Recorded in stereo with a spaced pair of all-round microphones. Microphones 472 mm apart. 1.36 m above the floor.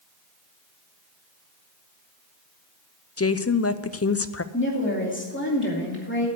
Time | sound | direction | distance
3.2 | a woman speaking | 30° left (ahead or behind) | 0.5 m
4.5 | a woman speaking | 25° left (ahead or behind) | 2.5 m